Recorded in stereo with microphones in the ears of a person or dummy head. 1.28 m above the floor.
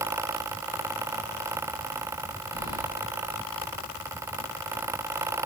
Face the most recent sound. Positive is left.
turn(degrees=30)  # may be behind; listen again after turning